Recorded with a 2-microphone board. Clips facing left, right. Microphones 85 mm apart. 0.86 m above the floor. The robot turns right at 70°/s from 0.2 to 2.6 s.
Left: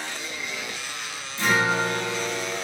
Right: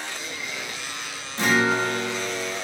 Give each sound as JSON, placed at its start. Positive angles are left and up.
{"t": 1.4, "sound": "a guitar", "azimuth_deg": -80, "distance_m": 0.6}